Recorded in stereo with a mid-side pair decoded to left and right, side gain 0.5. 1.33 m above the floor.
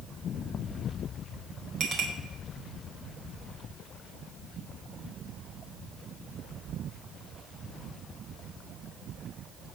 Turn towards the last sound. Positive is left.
turn(degrees=-65)